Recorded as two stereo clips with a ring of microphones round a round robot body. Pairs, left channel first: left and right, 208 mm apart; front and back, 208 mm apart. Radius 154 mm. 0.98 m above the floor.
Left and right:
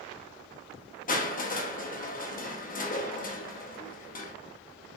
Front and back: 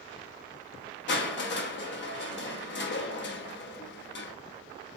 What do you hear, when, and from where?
1.1 s crushing: 35° left, 0.8 m